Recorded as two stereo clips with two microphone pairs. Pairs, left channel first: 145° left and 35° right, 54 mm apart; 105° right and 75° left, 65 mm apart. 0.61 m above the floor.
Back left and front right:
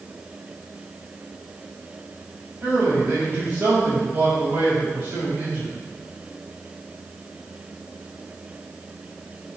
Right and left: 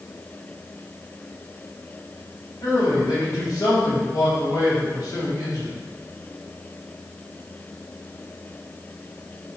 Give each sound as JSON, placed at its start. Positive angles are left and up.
{"t": 2.6, "sound": "a man speaking", "azimuth_deg": -85, "distance_m": 3.5}